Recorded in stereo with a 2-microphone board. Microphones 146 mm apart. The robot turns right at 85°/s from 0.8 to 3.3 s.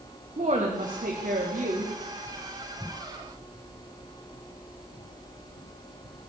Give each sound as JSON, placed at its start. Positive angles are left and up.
{"t": 0.4, "sound": "a woman speaking", "azimuth_deg": -130, "distance_m": 1.1}